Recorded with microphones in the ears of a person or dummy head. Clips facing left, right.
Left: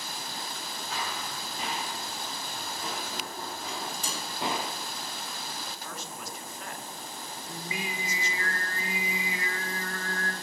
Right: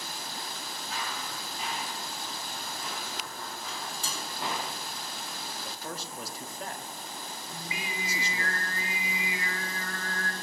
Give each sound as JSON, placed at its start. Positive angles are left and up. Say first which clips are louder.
{"t": 0.9, "sound": "running footsteps", "louder": "left 2 dB", "side_deg": 55, "distance_m": 5.5}
{"t": 3.7, "sound": "dishes clattering", "louder": "left 3 dB", "side_deg": 15, "distance_m": 2.0}
{"t": 5.6, "sound": "a man speaking", "louder": "right 2 dB", "side_deg": -30, "distance_m": 1.0}
{"t": 7.5, "sound": "singing", "louder": "left 4 dB", "side_deg": 35, "distance_m": 2.5}